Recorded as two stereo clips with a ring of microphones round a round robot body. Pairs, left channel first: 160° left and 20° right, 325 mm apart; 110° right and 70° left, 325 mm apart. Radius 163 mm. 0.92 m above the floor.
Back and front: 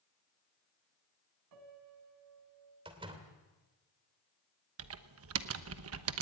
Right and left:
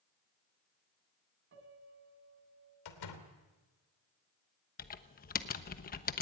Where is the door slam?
100° right, 3 m.